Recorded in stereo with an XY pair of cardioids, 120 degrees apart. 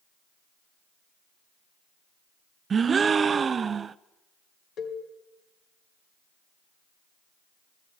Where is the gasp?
35° right, 0.5 m.